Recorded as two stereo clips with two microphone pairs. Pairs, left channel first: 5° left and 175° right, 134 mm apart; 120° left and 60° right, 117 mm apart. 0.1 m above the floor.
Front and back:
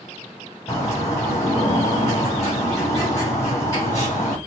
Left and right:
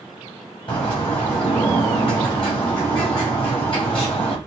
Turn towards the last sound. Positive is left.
turn(degrees=75)